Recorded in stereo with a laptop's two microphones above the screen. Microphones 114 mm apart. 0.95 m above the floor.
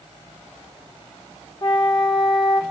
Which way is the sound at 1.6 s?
40° left (ahead or behind).